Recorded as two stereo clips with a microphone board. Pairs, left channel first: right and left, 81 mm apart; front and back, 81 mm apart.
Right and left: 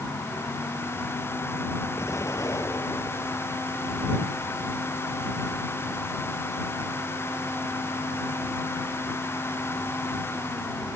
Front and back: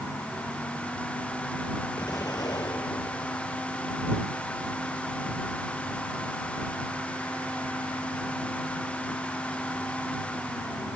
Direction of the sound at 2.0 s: 40° right.